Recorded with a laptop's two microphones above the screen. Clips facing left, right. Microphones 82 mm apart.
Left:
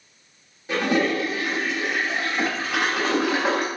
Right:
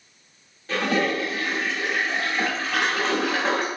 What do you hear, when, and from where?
0.7 s a toilet flushing: 10° left (ahead or behind), 1.0 m